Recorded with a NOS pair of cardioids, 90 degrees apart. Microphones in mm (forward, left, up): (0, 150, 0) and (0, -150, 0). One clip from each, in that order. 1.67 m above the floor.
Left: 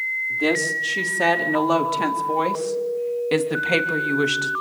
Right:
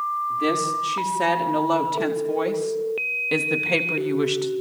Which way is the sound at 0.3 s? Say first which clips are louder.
Left 2 dB; 15° left.